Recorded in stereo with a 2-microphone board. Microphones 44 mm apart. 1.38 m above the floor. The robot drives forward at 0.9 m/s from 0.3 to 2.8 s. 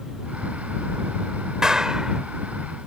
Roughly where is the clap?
Centre.